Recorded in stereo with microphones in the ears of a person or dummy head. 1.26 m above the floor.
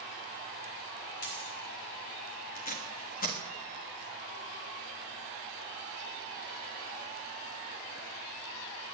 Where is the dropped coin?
55° left (ahead or behind), 3 m.